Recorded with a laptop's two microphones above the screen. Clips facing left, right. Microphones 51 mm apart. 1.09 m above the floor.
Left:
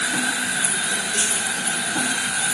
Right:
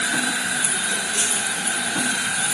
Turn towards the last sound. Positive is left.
No sound to turn to.